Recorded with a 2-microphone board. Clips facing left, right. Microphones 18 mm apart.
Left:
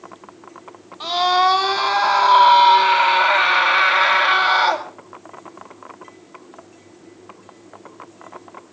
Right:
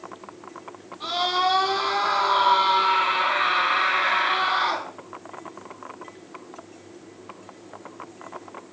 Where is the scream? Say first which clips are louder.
Left 7 dB; 40° left (ahead or behind), 6 m; by 4.9 s 80° left, 4.5 m.